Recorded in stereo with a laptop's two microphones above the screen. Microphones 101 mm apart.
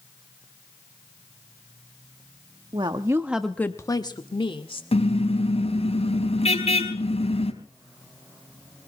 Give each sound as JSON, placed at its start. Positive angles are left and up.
{"t": 2.7, "sound": "a woman speaking", "side_deg": -50, "distance_m": 1.3}
{"t": 4.9, "sound": "a car horn", "side_deg": 75, "distance_m": 4.0}